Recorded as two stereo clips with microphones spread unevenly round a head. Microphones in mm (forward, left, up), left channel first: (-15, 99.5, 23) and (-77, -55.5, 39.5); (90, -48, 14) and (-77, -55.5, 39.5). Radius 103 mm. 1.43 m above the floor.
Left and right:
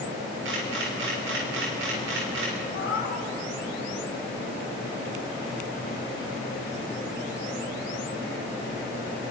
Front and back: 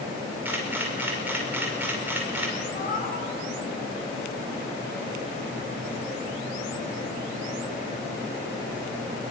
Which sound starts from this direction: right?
A camera shutter, at 0.5 s.